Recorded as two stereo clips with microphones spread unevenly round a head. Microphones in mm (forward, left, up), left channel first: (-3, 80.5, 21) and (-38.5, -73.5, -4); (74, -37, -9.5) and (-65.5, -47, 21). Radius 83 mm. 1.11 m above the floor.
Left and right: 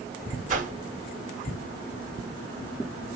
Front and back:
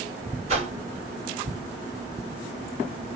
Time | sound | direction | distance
0.5 | a whoosh | 130° right | 1.3 m